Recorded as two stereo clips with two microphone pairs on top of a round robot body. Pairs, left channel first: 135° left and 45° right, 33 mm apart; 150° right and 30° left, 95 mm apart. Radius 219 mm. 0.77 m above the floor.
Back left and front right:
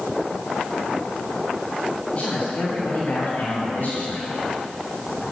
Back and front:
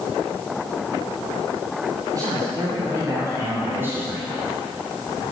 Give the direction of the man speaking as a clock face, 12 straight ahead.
9 o'clock.